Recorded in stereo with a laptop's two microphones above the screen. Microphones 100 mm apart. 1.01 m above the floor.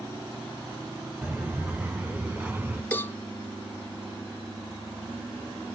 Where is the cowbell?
20° left (ahead or behind), 0.7 m.